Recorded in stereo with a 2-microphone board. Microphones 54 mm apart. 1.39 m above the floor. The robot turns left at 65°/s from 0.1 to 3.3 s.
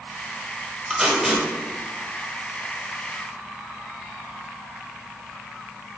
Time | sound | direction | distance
0.9 | tape being pulled | 10° right (ahead or behind) | 1.1 m